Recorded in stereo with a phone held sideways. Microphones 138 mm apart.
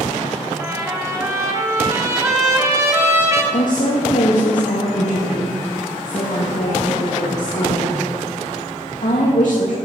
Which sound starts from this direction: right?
A trumpet, at 0.6 s.